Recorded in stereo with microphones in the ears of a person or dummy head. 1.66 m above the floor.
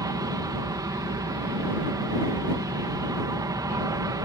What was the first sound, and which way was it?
An aircraft, 15° right (ahead or behind).